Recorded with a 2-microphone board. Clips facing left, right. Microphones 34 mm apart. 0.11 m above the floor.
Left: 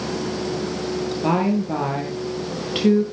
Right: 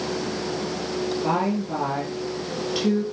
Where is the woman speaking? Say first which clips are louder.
Left 5 dB; 35° left (ahead or behind), 2 m.